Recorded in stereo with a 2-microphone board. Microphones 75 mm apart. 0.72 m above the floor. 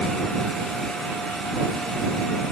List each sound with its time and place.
Only background noise.